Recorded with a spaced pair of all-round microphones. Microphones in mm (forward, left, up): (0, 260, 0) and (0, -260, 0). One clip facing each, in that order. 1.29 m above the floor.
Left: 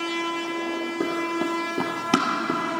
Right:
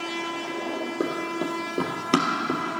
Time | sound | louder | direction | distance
1.0 | running footsteps | left 2 dB | 15° left (ahead or behind) | 2.5 m